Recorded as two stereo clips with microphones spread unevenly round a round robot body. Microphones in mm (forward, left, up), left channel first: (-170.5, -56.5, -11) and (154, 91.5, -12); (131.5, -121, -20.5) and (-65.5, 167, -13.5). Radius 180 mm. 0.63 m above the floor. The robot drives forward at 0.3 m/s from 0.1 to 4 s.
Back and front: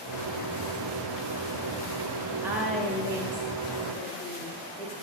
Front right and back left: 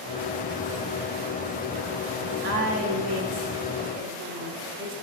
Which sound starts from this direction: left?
A woman speaking, at 2.4 s.